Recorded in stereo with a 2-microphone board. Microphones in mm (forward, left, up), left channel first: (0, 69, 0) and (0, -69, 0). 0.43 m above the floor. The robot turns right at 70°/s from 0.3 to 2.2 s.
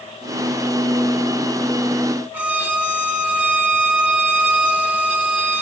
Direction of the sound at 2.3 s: 10° right (ahead or behind).